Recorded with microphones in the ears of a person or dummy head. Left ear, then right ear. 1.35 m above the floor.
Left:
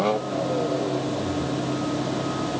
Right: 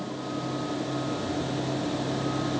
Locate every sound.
Only background noise.